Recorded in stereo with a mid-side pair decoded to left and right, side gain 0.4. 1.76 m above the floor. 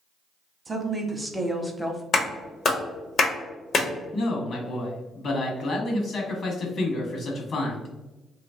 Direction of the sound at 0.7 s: 35° right.